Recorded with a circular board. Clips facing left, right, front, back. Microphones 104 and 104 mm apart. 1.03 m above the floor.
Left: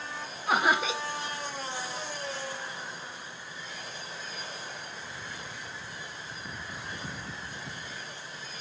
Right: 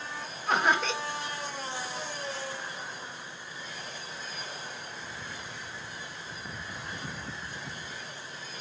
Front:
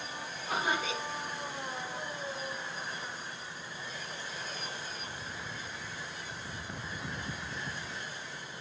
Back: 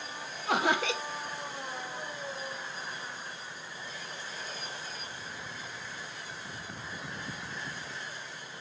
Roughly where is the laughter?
Behind.